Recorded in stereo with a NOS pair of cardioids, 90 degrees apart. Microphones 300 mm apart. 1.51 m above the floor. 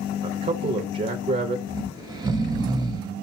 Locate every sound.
0.2 s a man speaking: 30° right, 0.8 m
1.7 s snoring: 15° right, 0.9 m